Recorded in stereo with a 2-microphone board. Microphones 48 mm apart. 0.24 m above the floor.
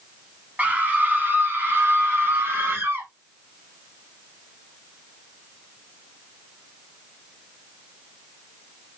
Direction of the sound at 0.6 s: 30° right (ahead or behind).